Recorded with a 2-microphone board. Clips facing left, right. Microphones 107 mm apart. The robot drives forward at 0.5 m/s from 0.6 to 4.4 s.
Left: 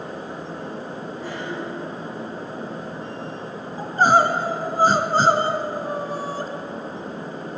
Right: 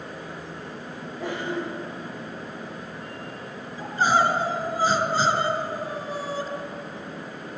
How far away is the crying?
About 1.9 m.